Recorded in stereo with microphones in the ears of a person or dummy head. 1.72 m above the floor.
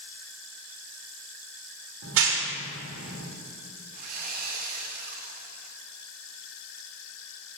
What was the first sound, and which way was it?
A clap, 70° right (ahead or behind).